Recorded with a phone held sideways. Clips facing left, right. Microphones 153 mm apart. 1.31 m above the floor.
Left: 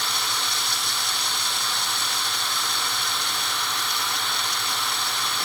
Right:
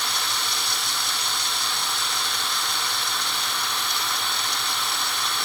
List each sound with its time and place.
Only background noise.